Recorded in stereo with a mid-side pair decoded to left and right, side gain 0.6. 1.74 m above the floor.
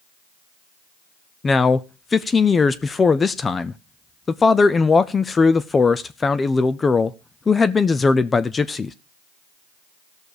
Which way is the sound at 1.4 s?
25° left.